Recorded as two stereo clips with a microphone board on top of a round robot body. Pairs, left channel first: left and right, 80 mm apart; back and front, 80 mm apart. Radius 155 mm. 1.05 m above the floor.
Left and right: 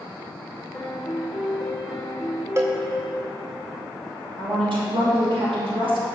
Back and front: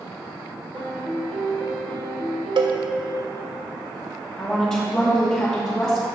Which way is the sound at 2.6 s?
30° right.